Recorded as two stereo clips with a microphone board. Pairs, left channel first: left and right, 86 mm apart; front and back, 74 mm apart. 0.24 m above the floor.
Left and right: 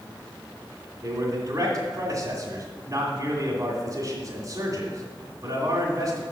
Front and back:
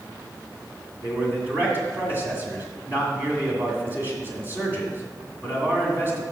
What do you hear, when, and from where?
1.0 s a man speaking: 125° right, 2 m